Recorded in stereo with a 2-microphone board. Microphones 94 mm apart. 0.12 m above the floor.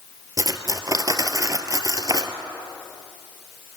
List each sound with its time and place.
0.4 s cutlery clinking: 40° right (ahead or behind), 1.2 m